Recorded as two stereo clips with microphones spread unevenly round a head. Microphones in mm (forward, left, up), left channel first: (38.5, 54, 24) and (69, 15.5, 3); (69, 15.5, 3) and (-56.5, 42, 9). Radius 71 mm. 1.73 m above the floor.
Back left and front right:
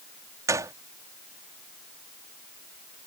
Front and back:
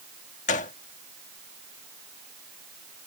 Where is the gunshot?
30° right.